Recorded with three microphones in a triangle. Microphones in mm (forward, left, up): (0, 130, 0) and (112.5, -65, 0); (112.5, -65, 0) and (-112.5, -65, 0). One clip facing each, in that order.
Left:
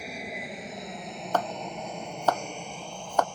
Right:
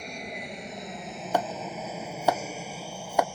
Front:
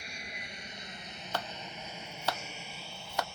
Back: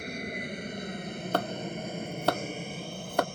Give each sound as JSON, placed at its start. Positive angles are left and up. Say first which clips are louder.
{"t": 0.0, "sound": "an aircraft", "louder": "even, back 13 dB", "azimuth_deg": -155}
{"t": 1.3, "sound": "chopping", "louder": "right 1 dB, back 9 dB", "azimuth_deg": -140}